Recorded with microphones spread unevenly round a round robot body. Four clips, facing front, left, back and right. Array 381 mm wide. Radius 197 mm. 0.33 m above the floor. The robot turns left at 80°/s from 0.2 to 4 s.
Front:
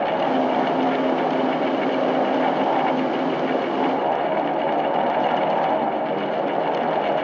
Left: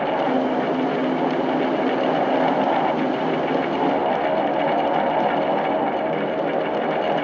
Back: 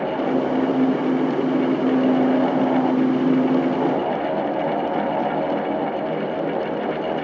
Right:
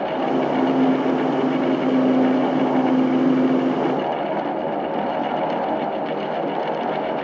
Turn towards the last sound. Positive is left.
No sound to turn to.